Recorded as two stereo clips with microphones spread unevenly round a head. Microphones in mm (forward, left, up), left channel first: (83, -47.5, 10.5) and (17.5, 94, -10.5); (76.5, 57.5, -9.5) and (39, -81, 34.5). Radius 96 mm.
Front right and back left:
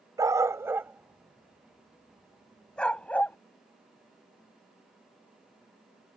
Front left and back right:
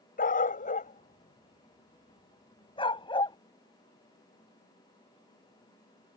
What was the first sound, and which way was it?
A dog barking, 45° left.